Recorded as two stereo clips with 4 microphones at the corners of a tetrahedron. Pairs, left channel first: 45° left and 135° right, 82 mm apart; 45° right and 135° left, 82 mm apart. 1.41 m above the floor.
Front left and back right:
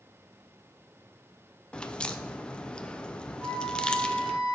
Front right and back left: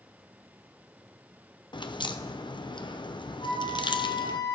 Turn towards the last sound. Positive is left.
turn(degrees=-60)